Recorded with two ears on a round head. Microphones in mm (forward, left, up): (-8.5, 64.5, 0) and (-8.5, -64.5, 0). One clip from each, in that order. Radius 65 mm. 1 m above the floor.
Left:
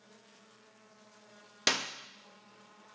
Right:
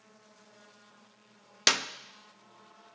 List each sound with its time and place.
1.7 s a clap: 20° right (ahead or behind), 1.1 m